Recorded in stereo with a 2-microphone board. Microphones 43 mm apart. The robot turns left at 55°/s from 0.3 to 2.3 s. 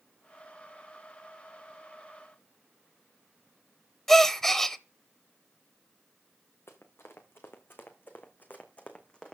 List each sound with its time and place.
4.1 s a gasp: 10° left (ahead or behind), 0.7 m
6.7 s running footsteps: 70° left (ahead or behind), 2.5 m; by 9.3 s 20° left (ahead or behind), 1.7 m